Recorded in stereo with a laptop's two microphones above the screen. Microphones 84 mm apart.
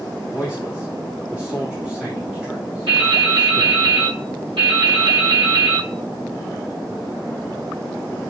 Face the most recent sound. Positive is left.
turn(degrees=-85)